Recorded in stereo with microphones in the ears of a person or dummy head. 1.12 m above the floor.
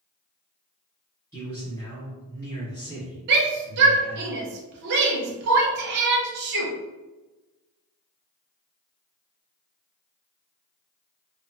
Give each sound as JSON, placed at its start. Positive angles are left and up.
{"t": 1.3, "sound": "a man speaking", "side_deg": 20, "distance_m": 2.0}
{"t": 3.3, "sound": "a shout", "side_deg": -55, "distance_m": 0.9}